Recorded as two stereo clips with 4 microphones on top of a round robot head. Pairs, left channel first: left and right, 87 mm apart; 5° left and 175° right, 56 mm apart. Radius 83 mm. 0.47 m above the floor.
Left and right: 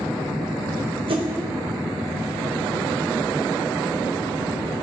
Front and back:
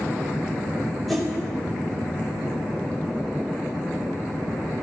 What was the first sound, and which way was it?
A whoosh, 85° right.